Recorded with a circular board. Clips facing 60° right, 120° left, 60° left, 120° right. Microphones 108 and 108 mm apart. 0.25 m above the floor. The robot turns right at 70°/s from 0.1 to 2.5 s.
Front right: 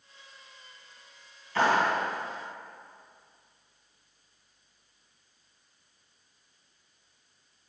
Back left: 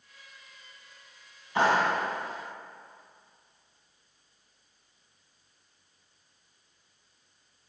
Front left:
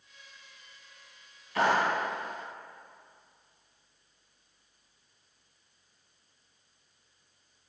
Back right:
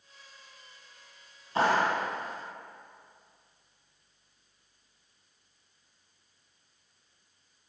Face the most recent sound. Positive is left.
turn(degrees=-105)